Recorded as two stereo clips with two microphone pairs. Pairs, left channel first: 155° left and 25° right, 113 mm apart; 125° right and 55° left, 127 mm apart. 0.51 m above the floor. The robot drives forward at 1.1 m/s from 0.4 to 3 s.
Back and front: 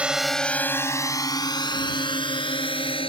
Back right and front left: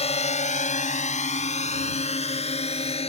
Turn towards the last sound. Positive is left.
turn(degrees=-165)